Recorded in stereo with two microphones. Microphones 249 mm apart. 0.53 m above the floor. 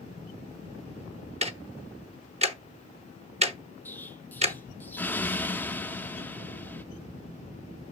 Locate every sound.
1.4 s ticking: 25° right (ahead or behind), 0.8 m
3.9 s an explosion: 5° left (ahead or behind), 0.6 m